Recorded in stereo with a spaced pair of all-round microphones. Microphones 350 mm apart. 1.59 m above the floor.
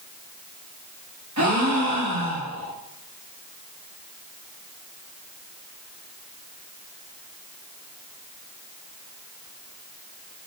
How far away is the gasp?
About 1.2 m.